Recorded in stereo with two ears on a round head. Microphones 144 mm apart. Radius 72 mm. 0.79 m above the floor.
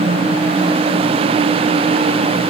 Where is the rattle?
I don't hear a rattle.